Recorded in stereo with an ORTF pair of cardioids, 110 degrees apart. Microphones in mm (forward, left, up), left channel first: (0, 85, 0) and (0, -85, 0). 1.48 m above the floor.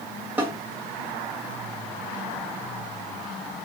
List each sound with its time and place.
0.4 s a snare drum: 10° right, 0.8 m